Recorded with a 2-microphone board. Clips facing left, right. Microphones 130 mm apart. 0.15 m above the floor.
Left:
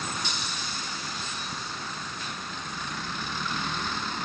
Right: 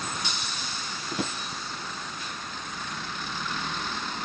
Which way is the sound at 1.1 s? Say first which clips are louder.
Right 7 dB; 75° right (ahead or behind).